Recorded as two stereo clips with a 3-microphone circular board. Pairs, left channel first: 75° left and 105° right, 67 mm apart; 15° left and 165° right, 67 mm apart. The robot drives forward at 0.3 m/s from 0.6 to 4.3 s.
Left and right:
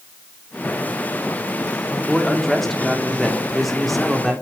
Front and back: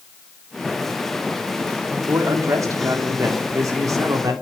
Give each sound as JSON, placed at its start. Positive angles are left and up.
{"t": 2.1, "sound": "a man speaking", "azimuth_deg": 160, "distance_m": 3.5}